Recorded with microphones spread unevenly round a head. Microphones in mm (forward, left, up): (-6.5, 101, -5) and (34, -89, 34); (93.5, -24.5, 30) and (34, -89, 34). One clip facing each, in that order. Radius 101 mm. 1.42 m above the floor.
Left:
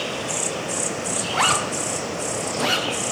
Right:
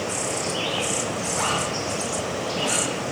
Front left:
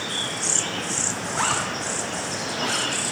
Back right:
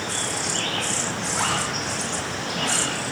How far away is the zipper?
About 0.7 m.